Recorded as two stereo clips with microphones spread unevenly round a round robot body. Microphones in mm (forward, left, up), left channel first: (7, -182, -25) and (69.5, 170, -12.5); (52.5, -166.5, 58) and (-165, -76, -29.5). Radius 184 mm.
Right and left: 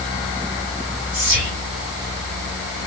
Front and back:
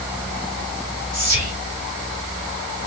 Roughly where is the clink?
No clink in this recording.